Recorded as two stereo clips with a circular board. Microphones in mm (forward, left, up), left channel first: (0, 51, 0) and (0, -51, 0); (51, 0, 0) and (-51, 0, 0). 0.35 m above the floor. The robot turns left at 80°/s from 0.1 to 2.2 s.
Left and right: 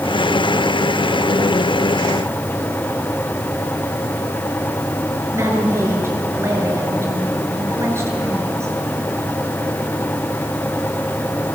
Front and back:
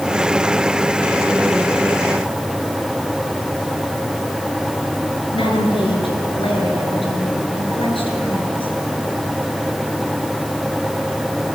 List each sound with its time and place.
5.3 s a woman speaking: 25° right, 6 m